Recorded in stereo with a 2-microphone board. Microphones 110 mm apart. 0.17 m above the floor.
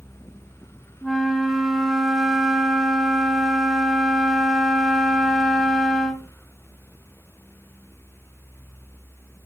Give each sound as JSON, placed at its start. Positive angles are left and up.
{"t": 1.0, "sound": "a flute", "side_deg": 0, "distance_m": 1.5}